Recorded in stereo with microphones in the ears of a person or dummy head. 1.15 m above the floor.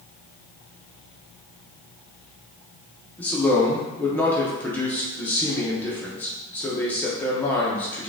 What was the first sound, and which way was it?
A man speaking, 10° left (ahead or behind).